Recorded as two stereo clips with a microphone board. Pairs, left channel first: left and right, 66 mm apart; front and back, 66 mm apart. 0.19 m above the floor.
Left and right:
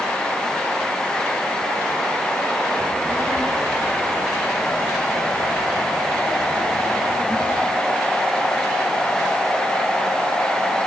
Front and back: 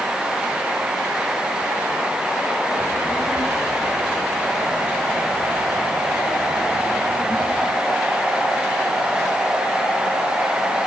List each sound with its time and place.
2.8 s a child speaking: 40° right, 4 m; by 7.8 s 10° left, 3.5 m